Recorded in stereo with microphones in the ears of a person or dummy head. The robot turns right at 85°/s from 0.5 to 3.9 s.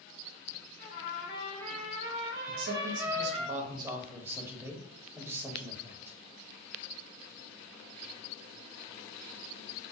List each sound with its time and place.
0.8 s a trumpet: 140° left, 1.1 m; by 3.5 s 5° left, 1.1 m
2.5 s a man speaking: 140° right, 0.7 m; by 6.1 s 20° right, 0.7 m